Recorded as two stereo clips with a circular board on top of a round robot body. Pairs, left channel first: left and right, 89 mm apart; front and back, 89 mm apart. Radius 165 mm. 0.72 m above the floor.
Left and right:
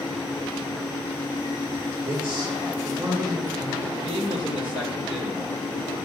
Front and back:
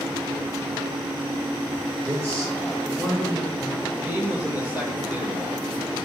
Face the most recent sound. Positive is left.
turn(degrees=-110)